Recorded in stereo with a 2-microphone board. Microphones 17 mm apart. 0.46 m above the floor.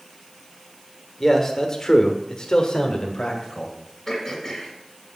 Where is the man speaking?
20° left (ahead or behind), 1.3 m; by 3.8 s 45° left (ahead or behind), 1.8 m.